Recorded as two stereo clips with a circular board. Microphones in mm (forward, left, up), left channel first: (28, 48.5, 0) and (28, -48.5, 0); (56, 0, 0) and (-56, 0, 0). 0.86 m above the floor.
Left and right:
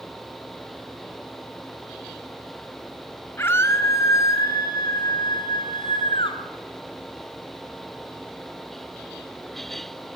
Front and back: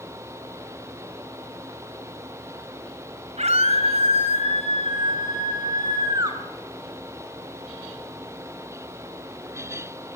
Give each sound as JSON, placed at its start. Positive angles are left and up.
{"t": 3.4, "sound": "a scream", "azimuth_deg": 155, "distance_m": 4.5}